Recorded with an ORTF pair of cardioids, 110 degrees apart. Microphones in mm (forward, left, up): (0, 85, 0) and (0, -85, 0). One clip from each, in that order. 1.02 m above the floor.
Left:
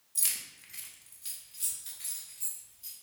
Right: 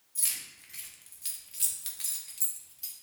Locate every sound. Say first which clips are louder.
0.1 s keys jangling: even; 25° left, 1.0 m; by 2.9 s 75° right, 1.7 m